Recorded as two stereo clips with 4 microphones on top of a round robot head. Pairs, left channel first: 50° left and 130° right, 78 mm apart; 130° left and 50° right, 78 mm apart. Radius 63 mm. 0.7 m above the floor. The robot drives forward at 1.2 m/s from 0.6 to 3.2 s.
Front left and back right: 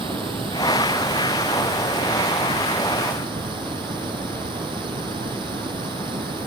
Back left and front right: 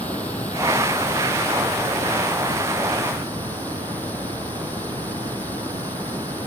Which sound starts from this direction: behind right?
Running water, at 0.0 s.